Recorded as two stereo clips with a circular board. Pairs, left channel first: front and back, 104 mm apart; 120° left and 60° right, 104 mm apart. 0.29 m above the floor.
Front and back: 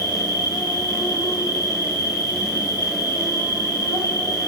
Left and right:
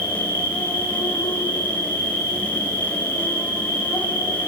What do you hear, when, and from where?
0.0 s an insect: 60° left, 4.5 m